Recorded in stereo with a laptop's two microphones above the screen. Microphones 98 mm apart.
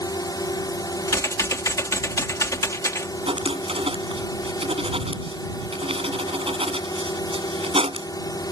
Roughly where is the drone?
Left.